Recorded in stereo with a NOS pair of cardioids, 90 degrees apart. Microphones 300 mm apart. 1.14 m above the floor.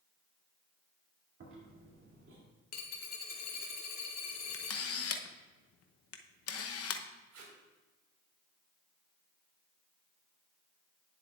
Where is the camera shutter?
50° left, 0.8 m.